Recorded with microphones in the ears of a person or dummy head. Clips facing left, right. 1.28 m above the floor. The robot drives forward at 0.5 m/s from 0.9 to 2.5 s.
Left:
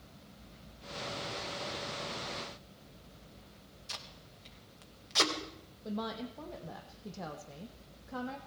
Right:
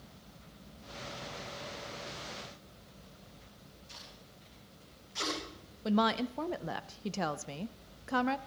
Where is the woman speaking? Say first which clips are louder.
Right 8 dB; 85° right, 0.6 m.